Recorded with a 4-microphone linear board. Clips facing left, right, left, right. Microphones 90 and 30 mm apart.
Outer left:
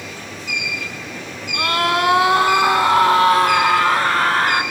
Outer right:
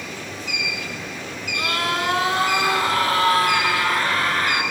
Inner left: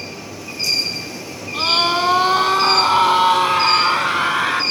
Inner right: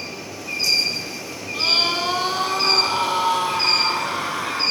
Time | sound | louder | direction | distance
1.5 | a scream | outer left 6 dB, inner left 3 dB | 55° left (ahead or behind) | 3 m